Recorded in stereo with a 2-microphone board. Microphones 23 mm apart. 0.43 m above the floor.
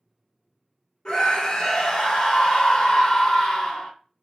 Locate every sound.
1.1 s a scream: 40° left (ahead or behind), 1.0 m